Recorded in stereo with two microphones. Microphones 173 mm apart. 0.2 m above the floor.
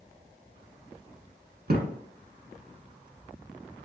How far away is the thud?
About 0.5 m.